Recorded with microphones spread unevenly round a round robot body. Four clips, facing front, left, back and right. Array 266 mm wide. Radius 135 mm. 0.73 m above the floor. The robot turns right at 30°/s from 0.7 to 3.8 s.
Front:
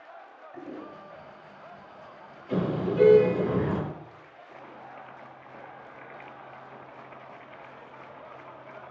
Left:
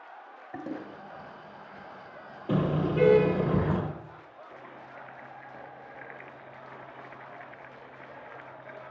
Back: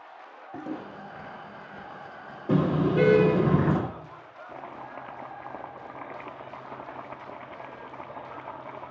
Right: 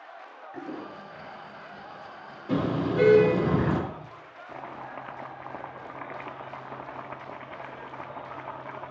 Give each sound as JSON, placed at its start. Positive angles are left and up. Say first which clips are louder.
{"t": 0.5, "sound": "a toilet flushing", "louder": "even, back 4 dB", "azimuth_deg": 135, "distance_m": 2.0}
{"t": 2.5, "sound": "a car horn", "louder": "right 1 dB, back 4 dB", "azimuth_deg": 160, "distance_m": 9.5}
{"t": 4.5, "sound": "chopping", "louder": "right 10 dB, back 5 dB", "azimuth_deg": -130, "distance_m": 1.5}